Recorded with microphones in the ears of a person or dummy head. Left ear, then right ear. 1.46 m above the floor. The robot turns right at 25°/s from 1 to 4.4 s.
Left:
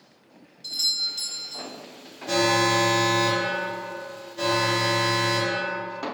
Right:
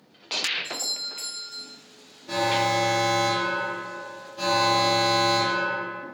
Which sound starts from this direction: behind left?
An alarm, at 2.3 s.